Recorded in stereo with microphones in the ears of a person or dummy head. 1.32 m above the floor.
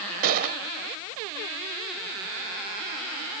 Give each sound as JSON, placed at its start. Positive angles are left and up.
{"t": 0.2, "sound": "a gunshot", "side_deg": -45, "distance_m": 0.7}